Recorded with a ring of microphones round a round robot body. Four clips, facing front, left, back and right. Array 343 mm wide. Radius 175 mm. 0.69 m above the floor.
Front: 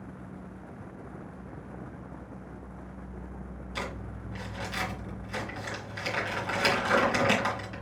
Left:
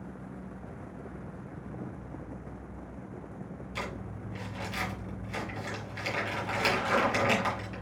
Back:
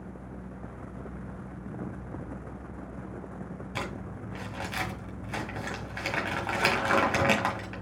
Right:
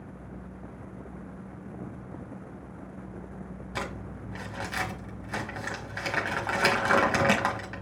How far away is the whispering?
No whispering in this recording.